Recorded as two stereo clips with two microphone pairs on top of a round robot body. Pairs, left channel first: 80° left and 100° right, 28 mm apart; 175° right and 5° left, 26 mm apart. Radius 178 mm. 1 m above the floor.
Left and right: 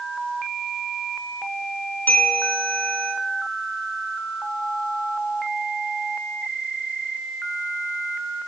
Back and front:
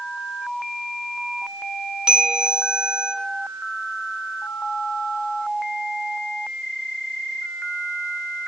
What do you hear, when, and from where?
2.1 s a bell: 65° left, 3.5 m